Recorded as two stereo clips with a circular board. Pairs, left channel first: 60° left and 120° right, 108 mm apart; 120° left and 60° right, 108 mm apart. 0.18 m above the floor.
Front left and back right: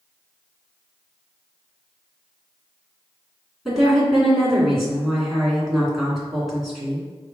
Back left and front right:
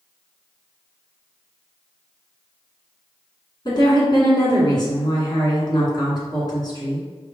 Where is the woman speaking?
150° left, 2.0 m.